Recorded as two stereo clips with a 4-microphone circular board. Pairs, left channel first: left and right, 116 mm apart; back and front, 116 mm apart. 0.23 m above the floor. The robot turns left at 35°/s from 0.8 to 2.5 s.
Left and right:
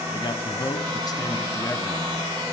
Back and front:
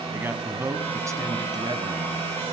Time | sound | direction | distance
0.1 | a man speaking | 65° left | 1.4 m